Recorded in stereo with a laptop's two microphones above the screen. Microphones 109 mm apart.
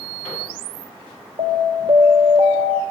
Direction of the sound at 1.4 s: 80° right.